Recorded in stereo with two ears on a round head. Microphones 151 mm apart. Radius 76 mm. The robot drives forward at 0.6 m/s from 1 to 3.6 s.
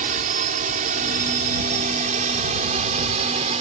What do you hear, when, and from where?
0.0 s a drone: 50° right (ahead or behind); by 3.6 s 40° right (ahead or behind)